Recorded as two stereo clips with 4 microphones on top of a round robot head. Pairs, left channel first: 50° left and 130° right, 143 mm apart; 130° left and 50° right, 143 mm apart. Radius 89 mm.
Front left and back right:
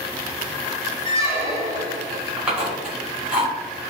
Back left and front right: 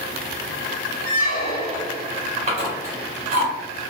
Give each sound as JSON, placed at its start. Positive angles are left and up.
{"t": 1.1, "sound": "a squeak", "azimuth_deg": 160, "distance_m": 1.3}
{"t": 2.4, "sound": "chewing", "azimuth_deg": -50, "distance_m": 1.8}